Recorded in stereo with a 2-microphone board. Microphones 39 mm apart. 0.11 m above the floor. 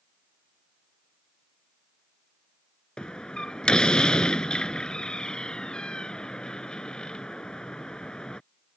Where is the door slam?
25° left (ahead or behind).